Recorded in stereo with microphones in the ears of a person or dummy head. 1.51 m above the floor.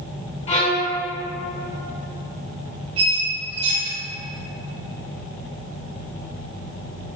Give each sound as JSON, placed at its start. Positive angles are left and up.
{"t": 0.5, "sound": "a violin", "side_deg": 35, "distance_m": 0.6}
{"t": 3.0, "sound": "a squeak", "side_deg": -35, "distance_m": 0.8}